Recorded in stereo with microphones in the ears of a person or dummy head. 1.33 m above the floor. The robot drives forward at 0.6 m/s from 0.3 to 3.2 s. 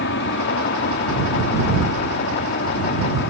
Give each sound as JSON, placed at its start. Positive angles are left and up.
{"t": 0.0, "sound": "an aircraft", "side_deg": 60}